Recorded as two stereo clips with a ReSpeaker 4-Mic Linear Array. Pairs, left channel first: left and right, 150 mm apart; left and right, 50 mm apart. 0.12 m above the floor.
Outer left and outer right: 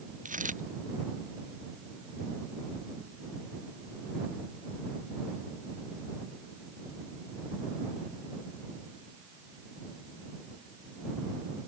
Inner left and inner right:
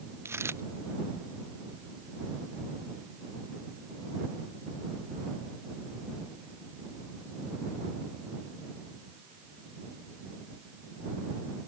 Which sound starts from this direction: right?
A dropped coin, at 0.2 s.